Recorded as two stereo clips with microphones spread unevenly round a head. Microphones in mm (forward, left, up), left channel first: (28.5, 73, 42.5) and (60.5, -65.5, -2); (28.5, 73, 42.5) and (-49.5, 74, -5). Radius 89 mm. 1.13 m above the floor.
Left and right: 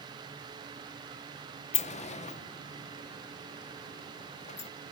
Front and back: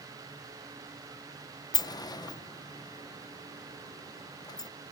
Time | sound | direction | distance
1.7 | a sliding door | 55° left | ?